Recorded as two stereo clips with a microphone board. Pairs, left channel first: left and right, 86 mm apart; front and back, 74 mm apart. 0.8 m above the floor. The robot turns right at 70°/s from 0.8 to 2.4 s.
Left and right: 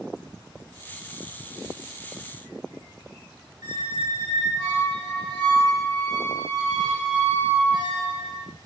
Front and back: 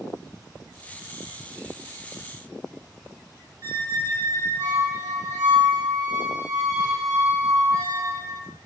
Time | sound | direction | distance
3.6 | a squeak | 125° right | 0.9 m